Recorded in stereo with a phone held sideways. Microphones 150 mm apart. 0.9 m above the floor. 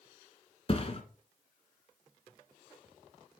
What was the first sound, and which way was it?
A thud, 40° left (ahead or behind).